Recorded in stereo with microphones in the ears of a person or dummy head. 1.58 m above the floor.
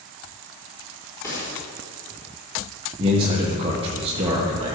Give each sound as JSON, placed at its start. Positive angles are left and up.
{"t": 1.2, "sound": "a gunshot", "side_deg": 15, "distance_m": 4.0}
{"t": 3.0, "sound": "a man speaking", "side_deg": -30, "distance_m": 1.4}